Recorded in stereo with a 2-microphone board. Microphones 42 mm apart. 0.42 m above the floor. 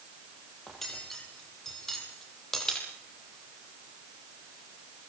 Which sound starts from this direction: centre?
Cutlery clinking, at 0.7 s.